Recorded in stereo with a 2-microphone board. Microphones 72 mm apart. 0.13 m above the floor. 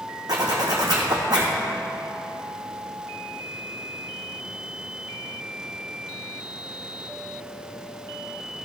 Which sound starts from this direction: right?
A zipper, at 0.3 s.